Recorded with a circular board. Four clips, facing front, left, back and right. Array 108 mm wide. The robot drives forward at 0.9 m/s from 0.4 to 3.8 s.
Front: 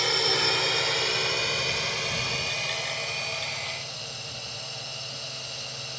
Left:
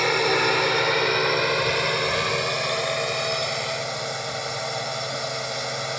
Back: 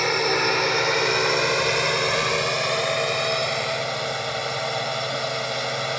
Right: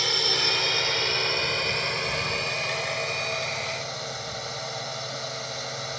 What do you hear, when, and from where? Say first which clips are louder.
0.0 s a drone: left 9 dB, back 6 dB; 125° left; by 6.0 s 160° left